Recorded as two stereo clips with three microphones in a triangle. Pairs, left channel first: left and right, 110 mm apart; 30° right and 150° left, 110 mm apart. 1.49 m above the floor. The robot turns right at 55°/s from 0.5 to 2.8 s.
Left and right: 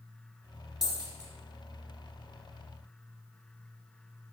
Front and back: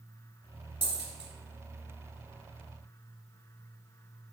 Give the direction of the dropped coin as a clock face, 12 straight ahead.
6 o'clock.